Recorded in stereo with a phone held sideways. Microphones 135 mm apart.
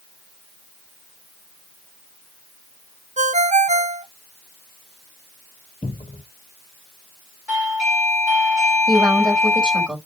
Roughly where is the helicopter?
I don't hear a helicopter.